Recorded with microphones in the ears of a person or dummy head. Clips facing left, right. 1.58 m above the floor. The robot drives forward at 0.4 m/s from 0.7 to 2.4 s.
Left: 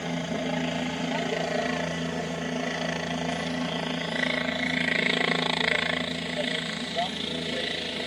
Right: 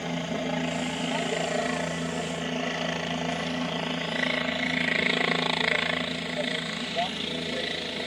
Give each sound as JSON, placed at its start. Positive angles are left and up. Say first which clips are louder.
{"t": 0.0, "sound": "a helicopter", "louder": "even", "side_deg": 5}